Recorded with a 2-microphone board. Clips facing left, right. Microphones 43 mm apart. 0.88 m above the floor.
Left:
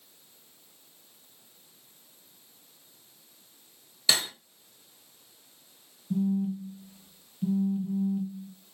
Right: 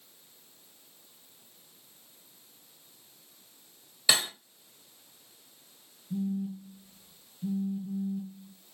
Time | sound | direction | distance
4.1 | cutlery clinking | 10° right (ahead or behind) | 0.9 m
6.1 | a phone buzzing | 45° left (ahead or behind) | 0.9 m